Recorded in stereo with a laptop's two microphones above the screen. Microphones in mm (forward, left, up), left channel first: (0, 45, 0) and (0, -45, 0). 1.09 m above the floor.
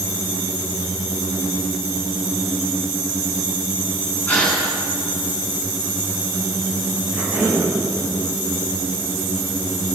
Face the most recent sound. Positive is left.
turn(degrees=-15)  # may be behind; listen again after turning